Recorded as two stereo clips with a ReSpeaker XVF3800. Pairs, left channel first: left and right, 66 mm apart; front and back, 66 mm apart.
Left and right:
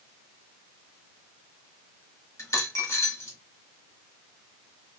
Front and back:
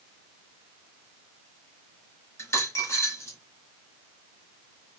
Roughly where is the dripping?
No dripping in this recording.